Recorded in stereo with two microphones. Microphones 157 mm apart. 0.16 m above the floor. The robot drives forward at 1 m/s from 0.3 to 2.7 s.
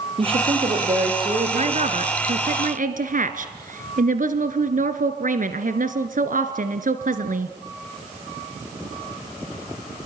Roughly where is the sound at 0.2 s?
Right.